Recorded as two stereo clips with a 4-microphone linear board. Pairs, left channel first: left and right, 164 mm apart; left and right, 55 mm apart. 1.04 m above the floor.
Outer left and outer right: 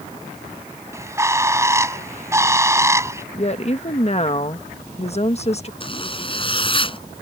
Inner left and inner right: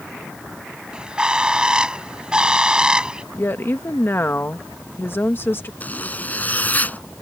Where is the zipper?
30° left (ahead or behind).